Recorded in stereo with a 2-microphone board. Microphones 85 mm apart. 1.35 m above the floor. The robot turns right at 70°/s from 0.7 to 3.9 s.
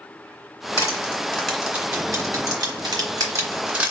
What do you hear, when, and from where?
0.8 s crushing: 45° left (ahead or behind), 2 m; by 3.9 s 15° right (ahead or behind), 2 m